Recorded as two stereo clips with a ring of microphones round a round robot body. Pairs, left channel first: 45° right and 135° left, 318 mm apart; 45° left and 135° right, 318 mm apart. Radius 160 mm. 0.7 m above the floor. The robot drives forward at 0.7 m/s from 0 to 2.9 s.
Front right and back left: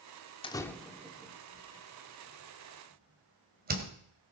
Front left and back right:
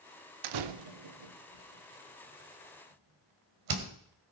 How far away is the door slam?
About 0.8 m.